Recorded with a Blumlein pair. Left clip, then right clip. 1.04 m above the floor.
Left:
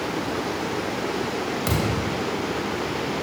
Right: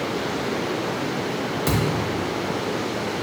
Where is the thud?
Straight ahead, 1.0 m.